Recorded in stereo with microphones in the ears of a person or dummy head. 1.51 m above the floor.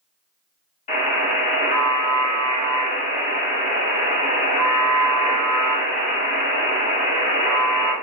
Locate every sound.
0.9 s a buzzer: 45° left (ahead or behind), 1.4 m